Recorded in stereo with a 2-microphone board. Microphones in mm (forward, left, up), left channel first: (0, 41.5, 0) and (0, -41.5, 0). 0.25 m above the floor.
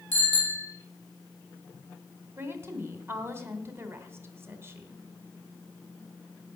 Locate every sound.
0.1 s a bicycle bell: 25° left (ahead or behind), 6 m
2.4 s a woman speaking: 30° right (ahead or behind), 1.8 m